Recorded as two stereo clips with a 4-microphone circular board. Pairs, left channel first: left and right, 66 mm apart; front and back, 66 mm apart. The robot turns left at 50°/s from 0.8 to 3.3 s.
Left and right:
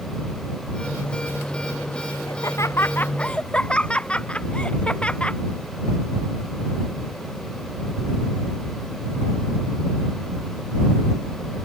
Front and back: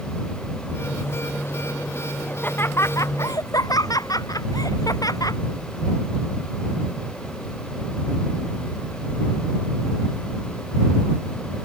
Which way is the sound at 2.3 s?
70° left.